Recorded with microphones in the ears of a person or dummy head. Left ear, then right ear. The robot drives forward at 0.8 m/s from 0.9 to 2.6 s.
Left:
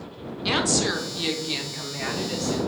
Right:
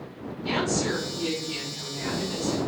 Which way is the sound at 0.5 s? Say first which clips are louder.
Left 4 dB; 45° left (ahead or behind).